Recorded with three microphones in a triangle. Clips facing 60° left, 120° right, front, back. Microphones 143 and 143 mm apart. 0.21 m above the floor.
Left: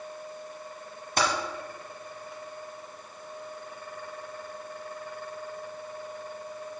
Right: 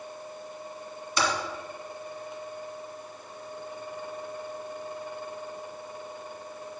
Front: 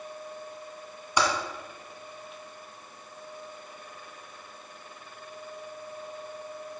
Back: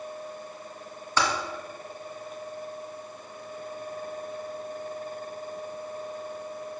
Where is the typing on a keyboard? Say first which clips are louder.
Left 1 dB, front 1 dB; 75° left, 1.6 m.